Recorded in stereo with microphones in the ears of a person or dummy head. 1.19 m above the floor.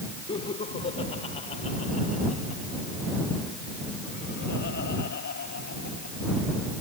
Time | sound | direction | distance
0.3 | laughter | 25° left (ahead or behind) | ?